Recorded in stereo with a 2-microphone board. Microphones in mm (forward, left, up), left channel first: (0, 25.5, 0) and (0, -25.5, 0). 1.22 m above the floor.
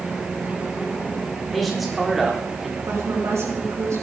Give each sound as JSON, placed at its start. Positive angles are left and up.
{"t": 1.5, "sound": "a man speaking", "side_deg": 0, "distance_m": 4.5}
{"t": 2.9, "sound": "a woman speaking", "side_deg": -70, "distance_m": 6.0}